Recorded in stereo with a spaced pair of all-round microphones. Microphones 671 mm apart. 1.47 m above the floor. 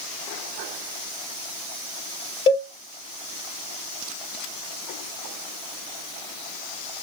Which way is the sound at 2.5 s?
65° left (ahead or behind).